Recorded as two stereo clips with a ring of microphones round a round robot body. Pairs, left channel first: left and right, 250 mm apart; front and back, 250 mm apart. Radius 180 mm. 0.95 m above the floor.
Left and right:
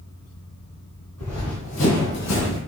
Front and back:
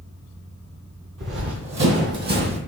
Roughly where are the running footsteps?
Behind.